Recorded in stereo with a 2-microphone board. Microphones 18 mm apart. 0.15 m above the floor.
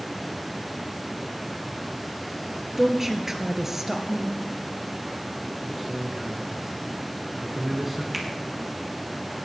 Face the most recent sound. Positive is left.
turn(degrees=-15)  # may be behind; listen again after turning